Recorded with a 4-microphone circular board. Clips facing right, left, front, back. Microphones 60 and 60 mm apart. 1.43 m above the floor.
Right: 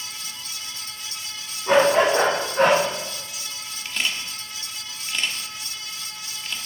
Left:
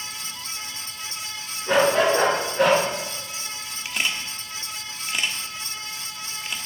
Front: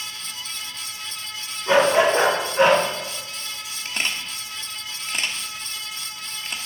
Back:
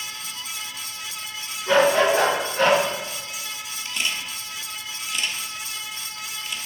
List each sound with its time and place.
1.7 s a dog barking: 70° right, 3.5 m
3.9 s a camera shutter: 20° left, 1.3 m